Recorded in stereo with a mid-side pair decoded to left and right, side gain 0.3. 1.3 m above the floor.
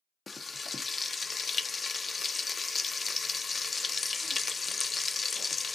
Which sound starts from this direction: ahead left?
Frying, at 0.3 s.